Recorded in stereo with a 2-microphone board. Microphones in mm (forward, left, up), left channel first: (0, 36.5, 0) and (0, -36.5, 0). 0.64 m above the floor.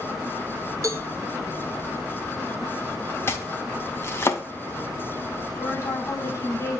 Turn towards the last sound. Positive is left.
turn(degrees=40)  # may be behind; listen again after turning